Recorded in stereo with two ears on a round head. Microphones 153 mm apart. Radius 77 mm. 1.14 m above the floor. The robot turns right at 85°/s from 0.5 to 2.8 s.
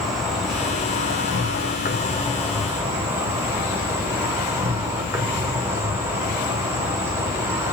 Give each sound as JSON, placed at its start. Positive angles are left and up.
{"t": 0.0, "sound": "an insect", "azimuth_deg": 0, "distance_m": 2.5}